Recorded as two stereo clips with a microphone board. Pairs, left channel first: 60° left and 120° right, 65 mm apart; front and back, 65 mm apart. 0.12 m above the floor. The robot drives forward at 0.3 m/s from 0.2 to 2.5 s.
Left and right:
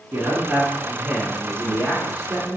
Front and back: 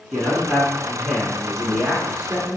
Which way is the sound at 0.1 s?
70° right.